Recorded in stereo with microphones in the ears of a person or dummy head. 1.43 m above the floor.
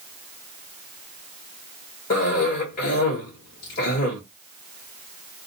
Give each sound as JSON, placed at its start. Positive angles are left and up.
{"t": 2.1, "sound": "a cough", "side_deg": 50, "distance_m": 1.2}